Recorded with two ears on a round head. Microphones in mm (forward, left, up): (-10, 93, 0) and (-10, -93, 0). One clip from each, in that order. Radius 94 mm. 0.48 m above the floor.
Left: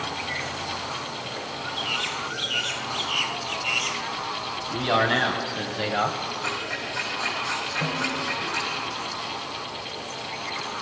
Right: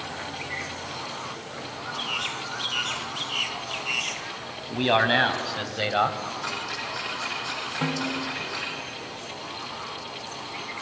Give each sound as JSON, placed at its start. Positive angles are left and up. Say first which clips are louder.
{"t": 4.7, "sound": "a man speaking", "louder": "right 1 dB", "side_deg": -60, "distance_m": 3.0}
{"t": 6.4, "sound": "ticking", "louder": "left 2 dB", "side_deg": -30, "distance_m": 7.0}
{"t": 7.8, "sound": "a snare drum", "louder": "left 2 dB", "side_deg": -50, "distance_m": 1.4}